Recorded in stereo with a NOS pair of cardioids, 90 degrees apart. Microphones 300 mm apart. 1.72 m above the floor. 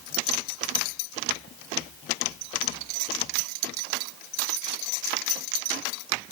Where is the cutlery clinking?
I don't hear cutlery clinking.